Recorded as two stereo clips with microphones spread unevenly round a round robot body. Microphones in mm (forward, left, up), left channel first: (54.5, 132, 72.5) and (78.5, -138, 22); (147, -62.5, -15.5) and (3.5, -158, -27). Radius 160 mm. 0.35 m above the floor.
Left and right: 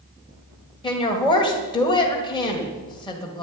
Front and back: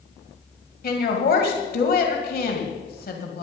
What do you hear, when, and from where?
0.8 s a woman speaking: 15° left, 1.9 m